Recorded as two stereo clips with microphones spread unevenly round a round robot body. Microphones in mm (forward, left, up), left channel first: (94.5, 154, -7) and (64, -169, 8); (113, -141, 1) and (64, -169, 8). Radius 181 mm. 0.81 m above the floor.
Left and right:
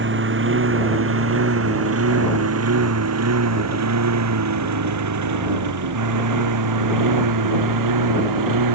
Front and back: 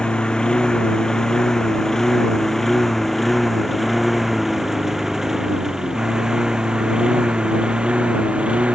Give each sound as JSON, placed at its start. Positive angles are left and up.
{"t": 0.0, "sound": "a lawn mower", "azimuth_deg": -45}